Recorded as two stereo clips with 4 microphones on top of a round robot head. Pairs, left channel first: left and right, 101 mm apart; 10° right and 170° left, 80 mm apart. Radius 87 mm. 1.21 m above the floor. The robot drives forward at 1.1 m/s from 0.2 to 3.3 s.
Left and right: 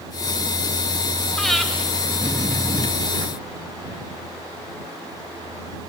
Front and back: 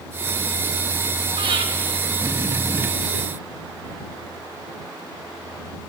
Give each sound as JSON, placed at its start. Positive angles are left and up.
{"t": 1.4, "sound": "breathing", "azimuth_deg": 175, "distance_m": 1.3}